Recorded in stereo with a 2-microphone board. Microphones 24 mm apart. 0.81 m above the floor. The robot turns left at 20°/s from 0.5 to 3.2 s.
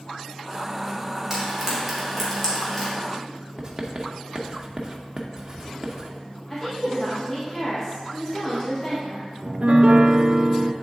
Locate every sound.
1.3 s frying: 15° right (ahead or behind), 2.5 m; by 2.9 s 20° left (ahead or behind), 2.5 m
3.6 s writing: 35° right (ahead or behind), 0.8 m
6.5 s a woman speaking: 20° left (ahead or behind), 1.6 m
9.4 s a piano: 45° right (ahead or behind), 0.5 m